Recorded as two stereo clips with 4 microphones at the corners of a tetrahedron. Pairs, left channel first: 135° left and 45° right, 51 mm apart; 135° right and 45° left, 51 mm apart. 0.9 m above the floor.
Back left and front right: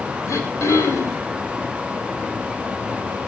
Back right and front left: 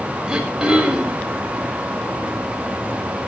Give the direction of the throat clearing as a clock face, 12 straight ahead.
8 o'clock.